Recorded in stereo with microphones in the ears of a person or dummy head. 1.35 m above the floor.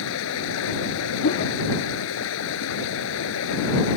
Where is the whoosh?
50° left (ahead or behind).